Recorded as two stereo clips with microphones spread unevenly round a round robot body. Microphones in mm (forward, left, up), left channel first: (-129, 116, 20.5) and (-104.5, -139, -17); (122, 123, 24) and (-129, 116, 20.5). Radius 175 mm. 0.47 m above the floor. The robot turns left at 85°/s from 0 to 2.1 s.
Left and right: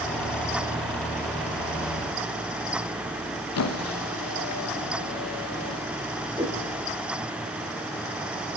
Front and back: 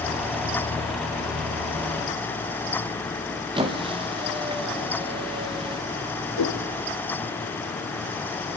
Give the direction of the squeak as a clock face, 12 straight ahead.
8 o'clock.